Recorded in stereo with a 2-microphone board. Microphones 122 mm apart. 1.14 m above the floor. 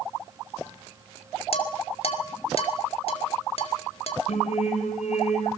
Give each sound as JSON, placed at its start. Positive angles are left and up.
{"t": 1.5, "sound": "dishes clattering", "side_deg": 55, "distance_m": 2.5}
{"t": 4.3, "sound": "singing", "side_deg": 65, "distance_m": 4.5}